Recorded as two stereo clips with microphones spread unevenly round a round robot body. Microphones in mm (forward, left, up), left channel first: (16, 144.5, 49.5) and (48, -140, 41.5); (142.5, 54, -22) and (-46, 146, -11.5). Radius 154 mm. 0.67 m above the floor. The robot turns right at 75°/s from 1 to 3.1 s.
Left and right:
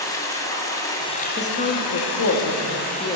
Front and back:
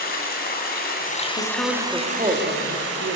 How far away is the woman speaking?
About 1.5 m.